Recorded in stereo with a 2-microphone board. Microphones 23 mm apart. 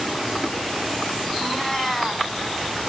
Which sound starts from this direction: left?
A cat meowing, at 1.4 s.